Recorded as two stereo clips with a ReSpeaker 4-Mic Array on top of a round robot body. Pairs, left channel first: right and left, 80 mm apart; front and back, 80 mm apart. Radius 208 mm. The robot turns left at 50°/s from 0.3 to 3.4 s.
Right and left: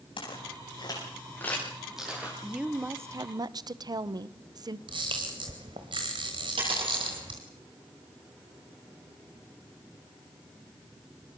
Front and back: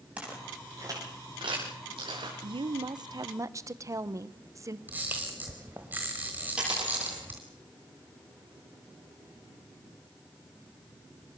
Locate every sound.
0.2 s footsteps: 105° right, 9.5 m; by 2.3 s 160° left, 7 m
2.4 s a woman speaking: straight behind, 1.1 m; by 4.8 s 130° left, 1.1 m
4.9 s a camera shutter: 110° left, 1.1 m
6.6 s a dropped coin: 100° left, 9 m